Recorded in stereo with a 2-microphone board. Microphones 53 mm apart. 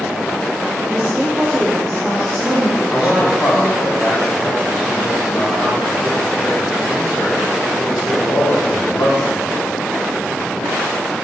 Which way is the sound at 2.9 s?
40° left (ahead or behind).